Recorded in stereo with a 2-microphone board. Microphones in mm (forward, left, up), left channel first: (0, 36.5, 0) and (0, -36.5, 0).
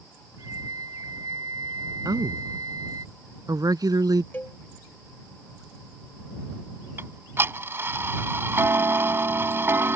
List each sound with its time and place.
0.4 s a flute: 55° right (ahead or behind)
2.0 s a woman speaking: 65° right (ahead or behind)
4.3 s a cowbell: 30° left (ahead or behind)
7.0 s ticking: 35° right (ahead or behind)